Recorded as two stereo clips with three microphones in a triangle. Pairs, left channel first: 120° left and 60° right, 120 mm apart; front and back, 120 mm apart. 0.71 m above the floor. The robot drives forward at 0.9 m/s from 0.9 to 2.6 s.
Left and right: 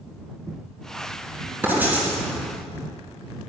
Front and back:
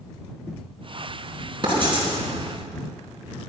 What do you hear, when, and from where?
1.6 s writing: 135° right, 4 m; by 2.1 s 140° right, 4 m